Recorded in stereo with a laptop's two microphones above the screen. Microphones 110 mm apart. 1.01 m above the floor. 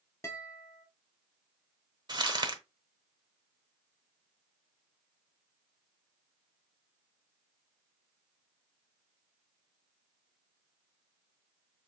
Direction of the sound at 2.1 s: 40° right (ahead or behind).